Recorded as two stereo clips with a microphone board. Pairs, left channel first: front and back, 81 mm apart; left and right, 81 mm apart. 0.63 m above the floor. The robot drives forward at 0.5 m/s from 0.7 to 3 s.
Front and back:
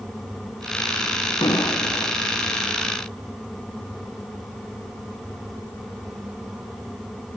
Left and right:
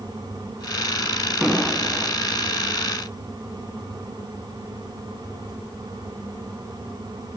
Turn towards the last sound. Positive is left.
turn(degrees=-15)